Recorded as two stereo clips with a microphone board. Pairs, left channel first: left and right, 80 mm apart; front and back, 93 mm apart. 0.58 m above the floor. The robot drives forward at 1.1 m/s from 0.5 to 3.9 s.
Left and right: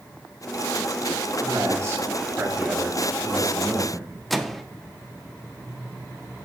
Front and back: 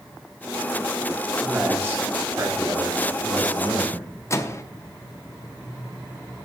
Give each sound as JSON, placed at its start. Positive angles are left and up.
{"t": 1.4, "sound": "a man speaking", "azimuth_deg": -100, "distance_m": 1.5}
{"t": 4.3, "sound": "a microwave", "azimuth_deg": 5, "distance_m": 0.5}